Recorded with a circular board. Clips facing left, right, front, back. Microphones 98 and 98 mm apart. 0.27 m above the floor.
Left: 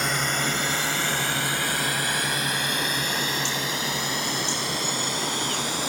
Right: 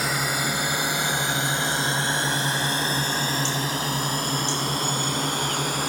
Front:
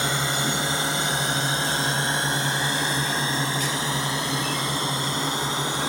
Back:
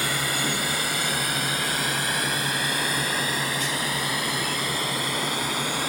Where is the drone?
10° right; by 5.9 s 60° right.